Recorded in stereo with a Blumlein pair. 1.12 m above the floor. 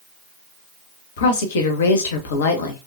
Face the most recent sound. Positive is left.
turn(degrees=60)